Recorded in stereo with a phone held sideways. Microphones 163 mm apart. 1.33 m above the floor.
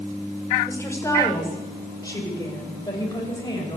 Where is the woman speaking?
15° left (ahead or behind), 5 m; by 3.8 s 25° left (ahead or behind), 7 m.